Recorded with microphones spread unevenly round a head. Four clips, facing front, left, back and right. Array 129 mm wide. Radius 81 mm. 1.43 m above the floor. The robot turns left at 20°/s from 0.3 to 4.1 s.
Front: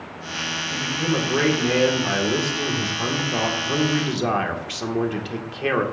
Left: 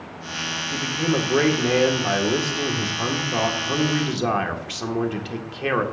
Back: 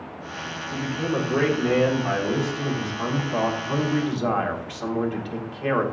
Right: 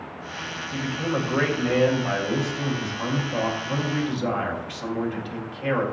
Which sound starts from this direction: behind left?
A man speaking, at 0.7 s.